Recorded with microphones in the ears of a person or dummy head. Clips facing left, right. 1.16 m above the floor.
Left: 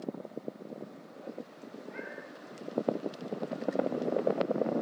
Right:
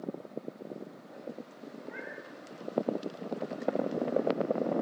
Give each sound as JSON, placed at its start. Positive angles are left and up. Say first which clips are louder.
{"t": 1.8, "sound": "a cat meowing", "louder": "left 1 dB", "side_deg": -15, "distance_m": 8.0}